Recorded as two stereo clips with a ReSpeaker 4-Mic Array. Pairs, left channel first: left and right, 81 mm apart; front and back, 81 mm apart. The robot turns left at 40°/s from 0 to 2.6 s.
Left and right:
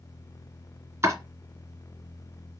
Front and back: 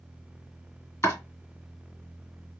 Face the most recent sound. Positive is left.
turn(degrees=-110)